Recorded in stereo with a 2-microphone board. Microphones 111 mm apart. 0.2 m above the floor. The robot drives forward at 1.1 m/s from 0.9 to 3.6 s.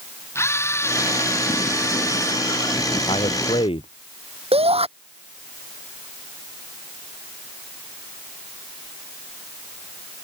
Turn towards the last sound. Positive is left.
turn(degrees=-60)  # may be behind; listen again after turning